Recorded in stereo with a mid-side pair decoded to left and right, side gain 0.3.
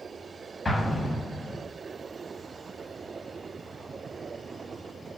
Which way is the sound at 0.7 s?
40° left.